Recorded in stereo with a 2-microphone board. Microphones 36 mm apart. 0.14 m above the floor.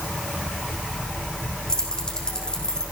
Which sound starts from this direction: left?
Keys jangling, at 1.7 s.